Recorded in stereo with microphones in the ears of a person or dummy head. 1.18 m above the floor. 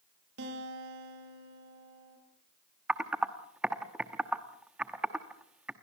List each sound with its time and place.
0.4 s a guitar: 65° right (ahead or behind), 6.5 m
2.9 s typing on a keyboard: 10° right (ahead or behind), 0.9 m